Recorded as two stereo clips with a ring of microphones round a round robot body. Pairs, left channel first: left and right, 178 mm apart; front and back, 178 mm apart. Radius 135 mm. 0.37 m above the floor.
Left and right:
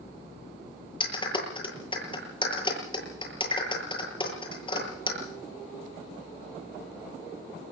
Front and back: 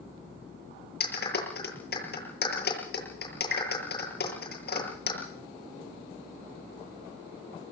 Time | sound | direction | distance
1.0 | a clap | 30° left | 8.5 m